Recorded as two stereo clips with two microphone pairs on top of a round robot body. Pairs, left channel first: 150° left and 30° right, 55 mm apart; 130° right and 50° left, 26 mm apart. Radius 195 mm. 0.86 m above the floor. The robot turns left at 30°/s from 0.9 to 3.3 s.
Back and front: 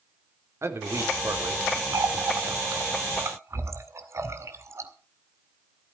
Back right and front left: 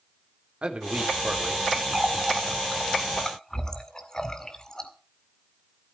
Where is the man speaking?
5° left, 4 m; by 1.8 s 25° right, 4 m.